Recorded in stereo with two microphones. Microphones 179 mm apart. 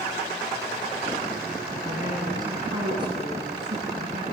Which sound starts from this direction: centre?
A woman speaking, at 1.8 s.